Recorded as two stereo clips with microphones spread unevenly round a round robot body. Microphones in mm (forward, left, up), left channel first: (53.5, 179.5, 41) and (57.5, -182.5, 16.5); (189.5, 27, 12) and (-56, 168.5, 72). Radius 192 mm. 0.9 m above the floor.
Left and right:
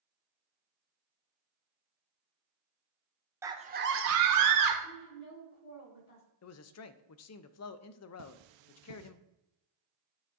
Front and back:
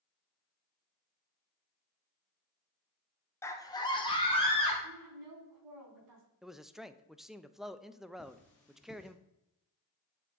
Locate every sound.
3.4 s a scream: 30° right, 0.9 m; by 4.7 s 90° right, 1.5 m
4.8 s a woman speaking: 145° left, 2.5 m
6.4 s a man speaking: 50° left, 0.5 m
8.2 s cutlery clinking: 120° right, 0.6 m